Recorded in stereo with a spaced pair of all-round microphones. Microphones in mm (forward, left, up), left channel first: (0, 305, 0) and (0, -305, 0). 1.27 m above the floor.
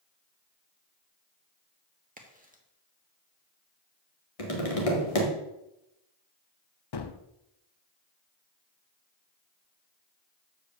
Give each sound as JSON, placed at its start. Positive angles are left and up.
{"t": 2.2, "sound": "a crack", "side_deg": -15, "distance_m": 1.4}
{"t": 4.4, "sound": "tapping", "side_deg": 65, "distance_m": 1.9}
{"t": 6.9, "sound": "a gunshot", "side_deg": 45, "distance_m": 0.6}